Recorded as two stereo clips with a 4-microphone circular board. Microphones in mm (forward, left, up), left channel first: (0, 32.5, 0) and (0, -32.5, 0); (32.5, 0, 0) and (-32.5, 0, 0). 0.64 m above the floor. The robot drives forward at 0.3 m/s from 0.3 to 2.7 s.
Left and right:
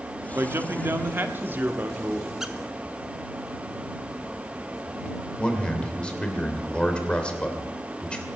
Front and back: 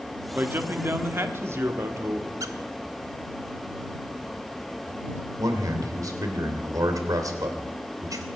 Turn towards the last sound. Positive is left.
turn(degrees=165)